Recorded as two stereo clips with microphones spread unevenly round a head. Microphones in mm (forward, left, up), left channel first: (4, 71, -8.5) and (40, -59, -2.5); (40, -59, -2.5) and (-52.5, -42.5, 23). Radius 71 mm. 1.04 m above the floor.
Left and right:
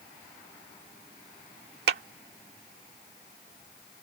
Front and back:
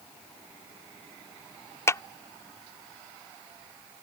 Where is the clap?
70° right.